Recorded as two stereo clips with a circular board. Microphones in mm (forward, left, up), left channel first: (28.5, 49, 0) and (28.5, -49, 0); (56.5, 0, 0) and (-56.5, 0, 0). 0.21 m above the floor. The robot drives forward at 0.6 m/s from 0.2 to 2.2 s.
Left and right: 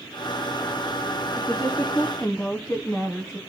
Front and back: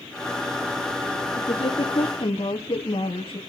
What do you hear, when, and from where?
1.4 s a woman speaking: 10° left, 2.0 m; by 3.4 s 15° left, 1.6 m